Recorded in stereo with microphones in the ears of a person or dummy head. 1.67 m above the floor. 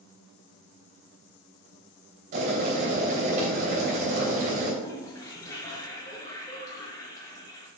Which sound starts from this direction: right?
Boiling, at 2.3 s.